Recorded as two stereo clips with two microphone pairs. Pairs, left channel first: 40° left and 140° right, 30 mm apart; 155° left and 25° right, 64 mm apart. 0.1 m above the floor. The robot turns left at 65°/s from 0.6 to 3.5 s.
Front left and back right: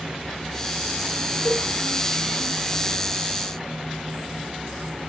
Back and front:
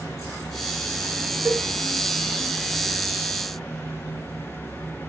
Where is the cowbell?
55° left, 6 m; by 1.7 s 40° left, 6 m.